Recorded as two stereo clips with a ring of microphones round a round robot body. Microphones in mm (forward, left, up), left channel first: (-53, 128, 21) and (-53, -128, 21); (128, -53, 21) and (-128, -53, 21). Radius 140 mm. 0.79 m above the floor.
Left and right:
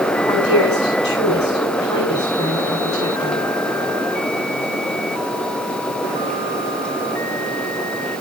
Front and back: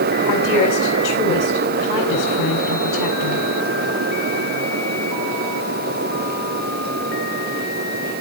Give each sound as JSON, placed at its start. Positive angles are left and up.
{"t": 0.3, "sound": "a woman speaking", "azimuth_deg": 15, "distance_m": 9.0}